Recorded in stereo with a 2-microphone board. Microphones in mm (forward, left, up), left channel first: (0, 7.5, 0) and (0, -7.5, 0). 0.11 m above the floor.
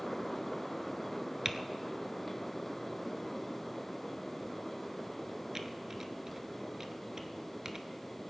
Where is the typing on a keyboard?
35° right (ahead or behind), 0.8 m.